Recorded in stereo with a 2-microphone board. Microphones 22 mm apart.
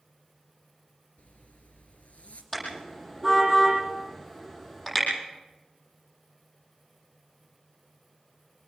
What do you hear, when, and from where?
1.2 s a zipper: 70° left (ahead or behind), 3 m
2.5 s a car horn: 15° left (ahead or behind), 9.5 m